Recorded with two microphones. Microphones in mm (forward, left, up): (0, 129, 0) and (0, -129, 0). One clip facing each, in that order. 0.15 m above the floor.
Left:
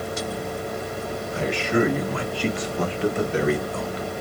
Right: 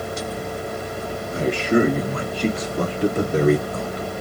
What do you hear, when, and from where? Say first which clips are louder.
1.3 s a man speaking: right 4 dB; 40° right (ahead or behind), 2.5 m; by 4.0 s 45° right (ahead or behind), 1.6 m